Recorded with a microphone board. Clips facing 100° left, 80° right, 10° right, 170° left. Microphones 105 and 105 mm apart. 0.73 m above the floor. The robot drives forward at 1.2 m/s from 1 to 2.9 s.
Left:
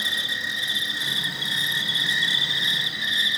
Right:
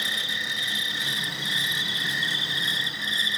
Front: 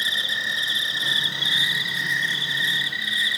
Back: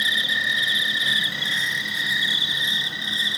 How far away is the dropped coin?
I don't hear a dropped coin.